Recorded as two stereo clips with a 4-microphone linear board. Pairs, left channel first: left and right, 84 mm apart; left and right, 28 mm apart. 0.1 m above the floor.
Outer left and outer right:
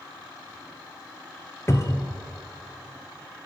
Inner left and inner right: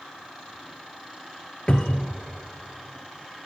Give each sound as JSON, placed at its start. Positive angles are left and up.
{"t": 1.7, "sound": "a cupboard door", "side_deg": 35, "distance_m": 0.7}